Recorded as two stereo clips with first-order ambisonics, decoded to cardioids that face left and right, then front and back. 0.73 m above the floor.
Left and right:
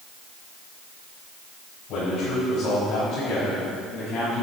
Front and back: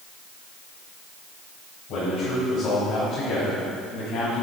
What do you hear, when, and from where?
1.9 s a man speaking: 35° left, 4 m; by 4.4 s 10° left, 4.5 m